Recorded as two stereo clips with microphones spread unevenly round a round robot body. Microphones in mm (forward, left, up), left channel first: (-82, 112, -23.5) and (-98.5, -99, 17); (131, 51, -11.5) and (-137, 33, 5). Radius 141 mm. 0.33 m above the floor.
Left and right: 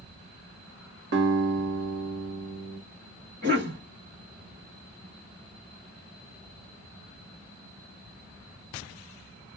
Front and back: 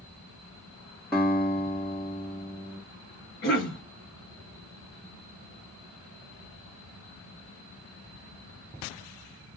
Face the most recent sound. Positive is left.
turn(degrees=-40)